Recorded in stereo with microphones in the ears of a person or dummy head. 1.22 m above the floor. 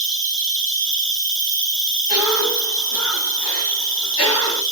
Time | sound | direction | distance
0.0 | an insect | 15° left (ahead or behind) | 3 m
2.1 | a cough | 85° left | 6.5 m